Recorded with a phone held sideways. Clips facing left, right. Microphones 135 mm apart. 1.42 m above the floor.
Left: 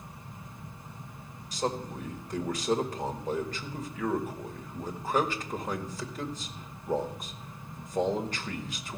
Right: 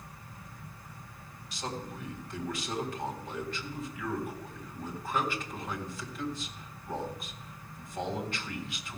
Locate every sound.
0.0 s a fan: 20° left (ahead or behind), 0.9 m
1.5 s a man speaking: 40° left (ahead or behind), 1.9 m